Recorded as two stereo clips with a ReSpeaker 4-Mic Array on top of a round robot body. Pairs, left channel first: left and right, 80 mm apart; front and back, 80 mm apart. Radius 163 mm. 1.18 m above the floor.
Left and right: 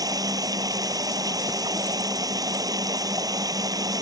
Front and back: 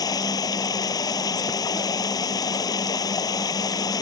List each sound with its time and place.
0.0 s running water: 45° right